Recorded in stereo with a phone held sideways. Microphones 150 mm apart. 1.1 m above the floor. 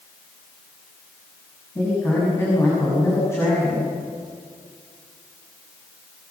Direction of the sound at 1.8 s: 20° left (ahead or behind).